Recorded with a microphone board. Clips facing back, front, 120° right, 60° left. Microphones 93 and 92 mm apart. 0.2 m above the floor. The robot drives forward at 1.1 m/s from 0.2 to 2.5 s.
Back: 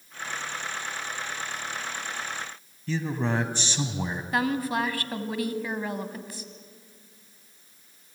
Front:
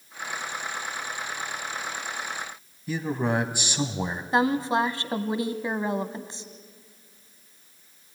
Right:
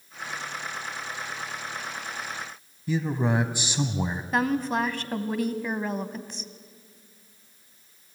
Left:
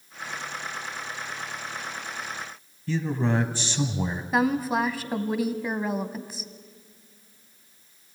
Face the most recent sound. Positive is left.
turn(degrees=-15)